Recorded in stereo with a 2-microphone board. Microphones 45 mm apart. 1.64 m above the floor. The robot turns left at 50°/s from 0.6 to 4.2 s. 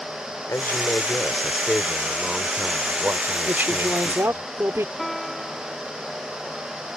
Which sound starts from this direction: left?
A man speaking, at 0.5 s.